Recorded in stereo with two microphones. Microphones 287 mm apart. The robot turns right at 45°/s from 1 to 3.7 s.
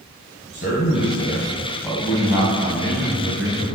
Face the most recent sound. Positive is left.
turn(degrees=-100)